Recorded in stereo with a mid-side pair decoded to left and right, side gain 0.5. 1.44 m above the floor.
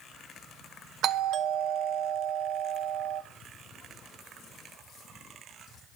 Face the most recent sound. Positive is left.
turn(degrees=-65)